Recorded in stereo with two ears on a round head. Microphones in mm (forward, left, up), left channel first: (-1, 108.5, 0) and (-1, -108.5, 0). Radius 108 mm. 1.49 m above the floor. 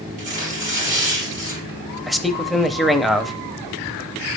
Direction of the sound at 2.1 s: Centre (ahead or behind).